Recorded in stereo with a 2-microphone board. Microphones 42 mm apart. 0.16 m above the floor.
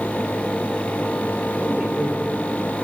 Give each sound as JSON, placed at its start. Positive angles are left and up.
{"t": 1.6, "sound": "a woman speaking", "side_deg": -30, "distance_m": 3.0}